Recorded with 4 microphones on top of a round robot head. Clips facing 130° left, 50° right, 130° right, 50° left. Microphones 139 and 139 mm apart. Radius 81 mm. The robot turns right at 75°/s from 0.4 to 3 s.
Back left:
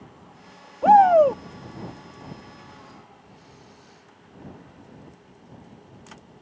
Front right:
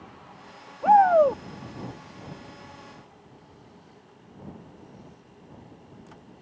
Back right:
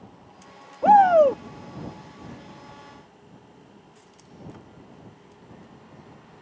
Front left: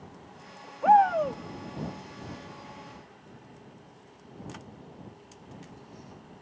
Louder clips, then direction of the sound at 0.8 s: Back left 3 dB, back right 6 dB; 175° left.